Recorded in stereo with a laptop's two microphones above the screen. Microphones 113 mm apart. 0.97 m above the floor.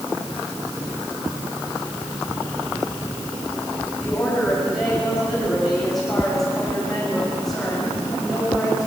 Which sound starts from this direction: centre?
A woman speaking, at 4.0 s.